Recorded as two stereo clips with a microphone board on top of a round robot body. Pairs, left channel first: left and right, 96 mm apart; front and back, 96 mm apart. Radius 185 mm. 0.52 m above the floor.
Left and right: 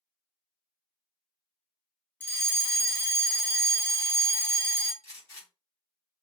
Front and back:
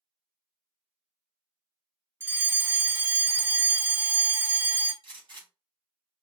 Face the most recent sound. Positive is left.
turn(degrees=145)